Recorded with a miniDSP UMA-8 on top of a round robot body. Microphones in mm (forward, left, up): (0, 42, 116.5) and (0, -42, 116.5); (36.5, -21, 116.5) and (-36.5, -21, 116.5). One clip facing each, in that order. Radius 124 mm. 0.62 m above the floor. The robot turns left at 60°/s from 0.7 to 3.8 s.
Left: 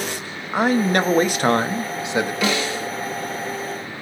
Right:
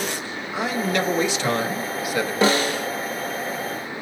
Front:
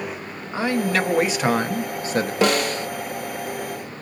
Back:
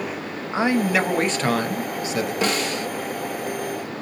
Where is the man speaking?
115° left, 0.8 m; by 2.3 s 20° left, 0.8 m.